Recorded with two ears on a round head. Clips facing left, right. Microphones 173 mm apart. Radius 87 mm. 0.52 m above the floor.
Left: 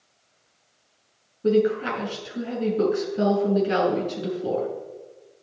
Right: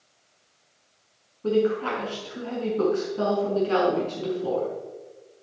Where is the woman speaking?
20° left (ahead or behind), 5 m.